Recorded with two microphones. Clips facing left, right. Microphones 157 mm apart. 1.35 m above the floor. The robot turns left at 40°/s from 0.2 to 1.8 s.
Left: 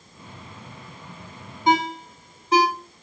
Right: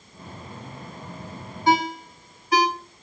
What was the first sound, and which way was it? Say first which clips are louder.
A ringtone: even; 20° left (ahead or behind).